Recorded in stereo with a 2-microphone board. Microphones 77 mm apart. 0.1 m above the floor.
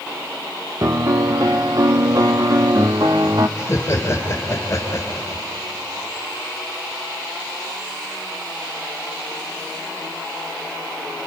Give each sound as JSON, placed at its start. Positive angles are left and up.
{"t": 0.8, "sound": "a piano", "side_deg": -45, "distance_m": 0.7}
{"t": 3.6, "sound": "laughter", "side_deg": 35, "distance_m": 2.0}